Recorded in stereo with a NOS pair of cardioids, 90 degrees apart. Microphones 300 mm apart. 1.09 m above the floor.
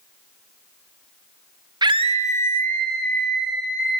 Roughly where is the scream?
Ahead.